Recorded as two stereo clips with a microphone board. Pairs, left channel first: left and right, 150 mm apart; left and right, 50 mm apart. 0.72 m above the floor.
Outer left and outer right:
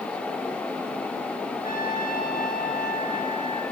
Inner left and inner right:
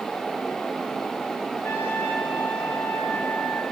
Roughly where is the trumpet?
Left.